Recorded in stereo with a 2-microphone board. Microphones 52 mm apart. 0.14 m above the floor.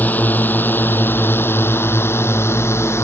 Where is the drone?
35° left (ahead or behind); by 3.0 s 55° left (ahead or behind).